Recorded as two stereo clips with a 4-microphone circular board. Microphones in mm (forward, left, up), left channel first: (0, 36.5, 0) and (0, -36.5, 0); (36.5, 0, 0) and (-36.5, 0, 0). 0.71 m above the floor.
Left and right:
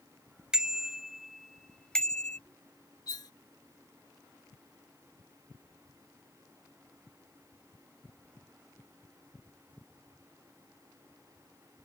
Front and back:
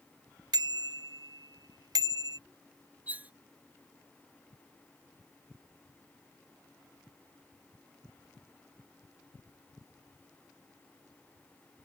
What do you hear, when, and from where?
0.5 s a bicycle bell: 170° right; by 2.4 s 160° left
3.1 s cutlery clinking: 115° left